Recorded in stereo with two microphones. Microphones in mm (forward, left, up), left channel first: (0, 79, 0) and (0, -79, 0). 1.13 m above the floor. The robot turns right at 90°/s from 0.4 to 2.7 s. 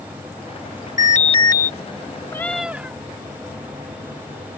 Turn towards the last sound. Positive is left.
turn(degrees=-170)